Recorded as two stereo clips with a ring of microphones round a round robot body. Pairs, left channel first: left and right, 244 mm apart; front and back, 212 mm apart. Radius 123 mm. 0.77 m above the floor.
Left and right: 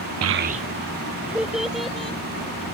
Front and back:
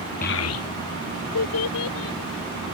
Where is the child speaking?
60° right; by 2.2 s straight ahead.